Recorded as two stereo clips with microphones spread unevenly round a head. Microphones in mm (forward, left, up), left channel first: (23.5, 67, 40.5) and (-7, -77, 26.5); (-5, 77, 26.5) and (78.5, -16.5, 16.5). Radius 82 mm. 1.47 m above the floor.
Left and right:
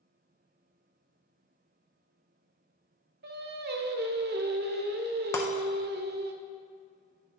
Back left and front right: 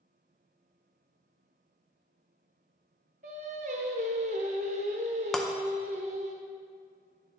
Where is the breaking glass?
60° left, 0.5 m.